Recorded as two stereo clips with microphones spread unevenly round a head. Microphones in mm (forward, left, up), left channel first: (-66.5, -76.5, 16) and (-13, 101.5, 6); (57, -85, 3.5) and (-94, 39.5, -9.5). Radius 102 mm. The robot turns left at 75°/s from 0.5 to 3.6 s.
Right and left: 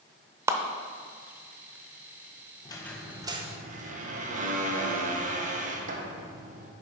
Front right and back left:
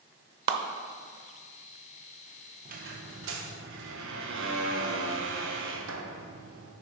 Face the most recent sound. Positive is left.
turn(degrees=120)